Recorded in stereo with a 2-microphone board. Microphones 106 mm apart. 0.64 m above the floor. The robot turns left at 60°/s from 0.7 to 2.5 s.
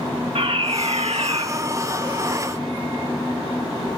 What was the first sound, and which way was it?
A fire alarm, 70° right.